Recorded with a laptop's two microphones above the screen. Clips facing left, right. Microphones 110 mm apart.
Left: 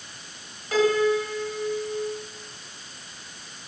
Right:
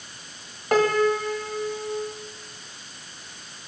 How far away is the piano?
About 1.8 m.